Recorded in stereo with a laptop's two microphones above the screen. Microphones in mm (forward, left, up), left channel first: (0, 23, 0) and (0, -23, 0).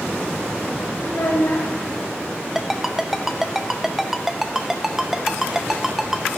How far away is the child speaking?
About 2 m.